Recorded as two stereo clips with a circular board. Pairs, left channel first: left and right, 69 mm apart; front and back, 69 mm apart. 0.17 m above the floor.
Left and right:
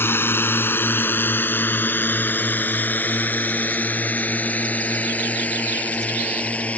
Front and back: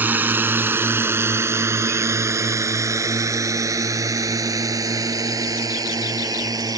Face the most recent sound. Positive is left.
turn(degrees=160)